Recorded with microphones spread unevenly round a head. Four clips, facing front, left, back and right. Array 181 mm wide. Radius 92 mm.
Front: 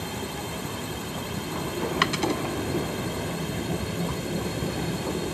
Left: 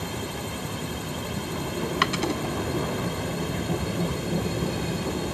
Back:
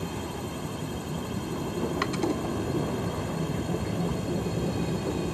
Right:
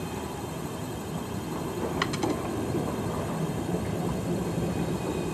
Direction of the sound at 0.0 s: 60° left.